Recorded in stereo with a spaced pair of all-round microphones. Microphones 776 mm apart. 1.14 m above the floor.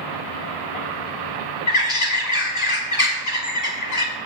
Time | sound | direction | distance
1.7 | a bird | 55° left (ahead or behind) | 2.5 m